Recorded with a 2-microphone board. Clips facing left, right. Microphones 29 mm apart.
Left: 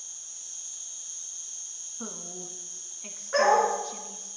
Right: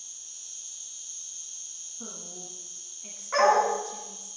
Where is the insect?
30° right (ahead or behind), 1.1 m.